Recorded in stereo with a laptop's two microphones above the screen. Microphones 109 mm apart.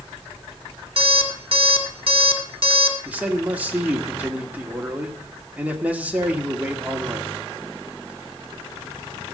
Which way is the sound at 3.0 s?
15° right (ahead or behind).